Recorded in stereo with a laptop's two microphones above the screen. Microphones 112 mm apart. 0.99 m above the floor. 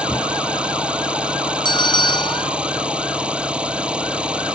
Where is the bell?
45° left (ahead or behind).